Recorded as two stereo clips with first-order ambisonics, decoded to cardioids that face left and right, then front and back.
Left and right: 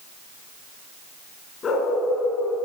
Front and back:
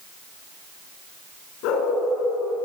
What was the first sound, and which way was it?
A dog barking, 25° left.